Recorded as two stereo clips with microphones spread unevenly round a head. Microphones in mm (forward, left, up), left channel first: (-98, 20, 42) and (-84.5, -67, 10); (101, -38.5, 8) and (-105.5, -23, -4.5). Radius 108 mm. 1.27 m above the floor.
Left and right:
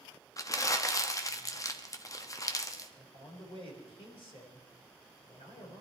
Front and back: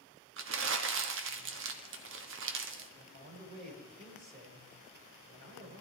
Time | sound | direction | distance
0.4 | crumpling | 140° left | 1.3 m
3.0 | a man speaking | 115° left | 5 m